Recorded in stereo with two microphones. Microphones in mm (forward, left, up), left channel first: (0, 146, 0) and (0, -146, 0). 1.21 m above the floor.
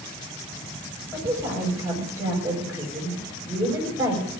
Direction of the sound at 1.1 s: 10° right (ahead or behind).